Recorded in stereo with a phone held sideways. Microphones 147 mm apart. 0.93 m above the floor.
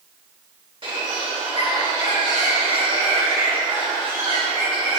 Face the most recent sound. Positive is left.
turn(degrees=-40)  # may be behind; listen again after turning